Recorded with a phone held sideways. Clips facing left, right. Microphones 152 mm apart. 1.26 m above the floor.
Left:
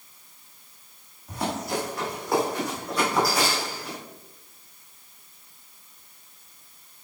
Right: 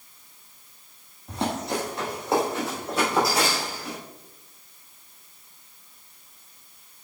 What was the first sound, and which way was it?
Running footsteps, 25° right (ahead or behind).